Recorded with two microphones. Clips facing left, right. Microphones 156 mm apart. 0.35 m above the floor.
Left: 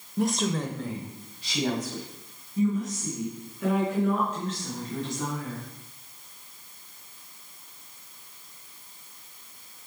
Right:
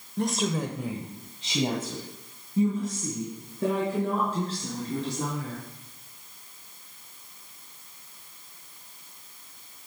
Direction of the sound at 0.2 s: 5° left (ahead or behind).